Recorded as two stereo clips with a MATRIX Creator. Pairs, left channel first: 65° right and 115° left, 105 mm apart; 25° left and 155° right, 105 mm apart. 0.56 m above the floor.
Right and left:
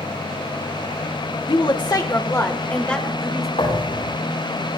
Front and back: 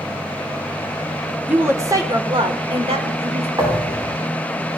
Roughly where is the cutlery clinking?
I don't hear cutlery clinking.